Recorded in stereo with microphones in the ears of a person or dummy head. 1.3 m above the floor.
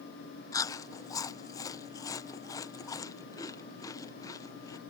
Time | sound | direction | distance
0.5 | chewing | 15° left (ahead or behind) | ?